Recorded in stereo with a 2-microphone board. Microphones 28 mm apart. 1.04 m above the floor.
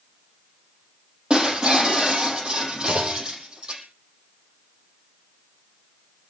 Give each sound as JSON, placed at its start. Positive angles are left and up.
{"t": 1.3, "sound": "breaking glass", "side_deg": -30, "distance_m": 7.0}
{"t": 2.9, "sound": "a clunk", "side_deg": -70, "distance_m": 2.0}